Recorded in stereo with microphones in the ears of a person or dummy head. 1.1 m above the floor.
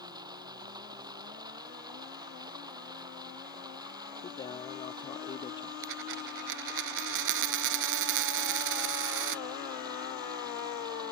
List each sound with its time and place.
0.0 s running water: 20° right (ahead or behind)
4.2 s a man speaking: 25° left (ahead or behind)
5.8 s a dropped coin: 65° right (ahead or behind)